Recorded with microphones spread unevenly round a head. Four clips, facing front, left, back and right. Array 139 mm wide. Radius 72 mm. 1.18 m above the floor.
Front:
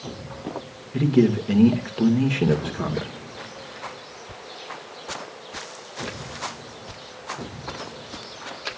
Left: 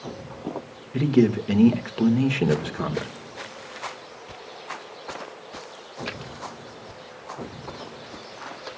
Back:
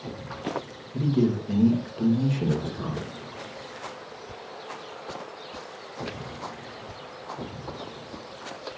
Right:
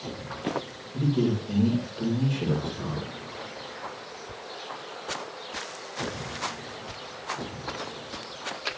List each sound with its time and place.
0.9 s a man speaking: 55° left, 2 m